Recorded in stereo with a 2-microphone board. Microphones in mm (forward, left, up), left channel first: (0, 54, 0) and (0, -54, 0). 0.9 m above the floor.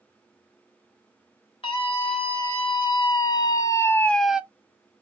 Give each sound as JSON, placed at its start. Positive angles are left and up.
{"t": 1.6, "sound": "a scream", "side_deg": 60, "distance_m": 1.8}